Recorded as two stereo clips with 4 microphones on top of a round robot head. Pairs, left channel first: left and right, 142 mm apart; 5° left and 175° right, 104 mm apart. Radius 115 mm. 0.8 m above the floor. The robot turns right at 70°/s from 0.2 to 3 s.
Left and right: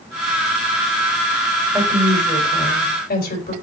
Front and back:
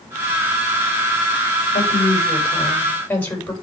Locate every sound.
1.7 s a woman speaking: 10° right, 4.5 m; by 3.5 s 80° left, 4.5 m